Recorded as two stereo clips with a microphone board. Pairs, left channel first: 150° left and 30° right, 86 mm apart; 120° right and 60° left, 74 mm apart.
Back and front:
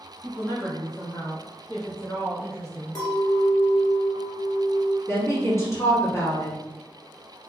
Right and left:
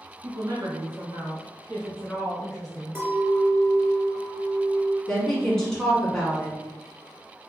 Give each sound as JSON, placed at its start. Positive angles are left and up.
{"t": 0.2, "sound": "a woman speaking", "azimuth_deg": 90, "distance_m": 1.9}
{"t": 3.0, "sound": "a clink", "azimuth_deg": 115, "distance_m": 1.7}
{"t": 5.1, "sound": "a woman speaking", "azimuth_deg": 165, "distance_m": 1.4}